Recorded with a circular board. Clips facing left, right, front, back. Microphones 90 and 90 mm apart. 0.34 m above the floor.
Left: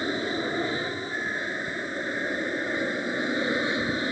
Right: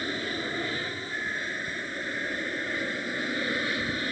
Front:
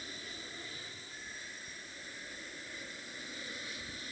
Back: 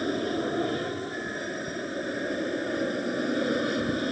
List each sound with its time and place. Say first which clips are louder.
0.0 s an aircraft: left 4 dB, back 21 dB; 160° left